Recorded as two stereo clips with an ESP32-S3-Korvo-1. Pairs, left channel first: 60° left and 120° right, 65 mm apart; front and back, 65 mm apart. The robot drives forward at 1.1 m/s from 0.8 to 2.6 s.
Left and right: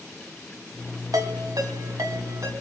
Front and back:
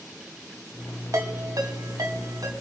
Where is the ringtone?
140° right, 2 m; by 2.5 s 155° right, 3.5 m.